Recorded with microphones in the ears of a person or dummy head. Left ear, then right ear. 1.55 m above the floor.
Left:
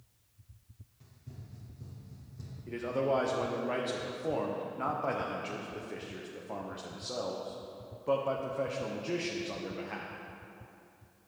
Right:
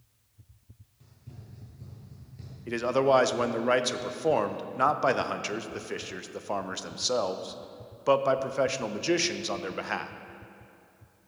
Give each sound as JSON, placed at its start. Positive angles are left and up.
{"t": 1.0, "sound": "running footsteps", "side_deg": -5, "distance_m": 2.0}
{"t": 2.7, "sound": "a man speaking", "side_deg": -75, "distance_m": 0.5}